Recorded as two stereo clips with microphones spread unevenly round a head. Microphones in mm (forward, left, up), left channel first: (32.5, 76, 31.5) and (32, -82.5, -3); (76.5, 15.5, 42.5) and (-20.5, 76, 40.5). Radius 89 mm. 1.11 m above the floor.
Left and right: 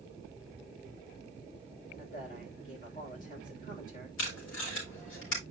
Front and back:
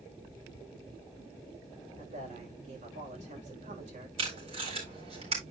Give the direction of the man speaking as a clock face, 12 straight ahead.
7 o'clock.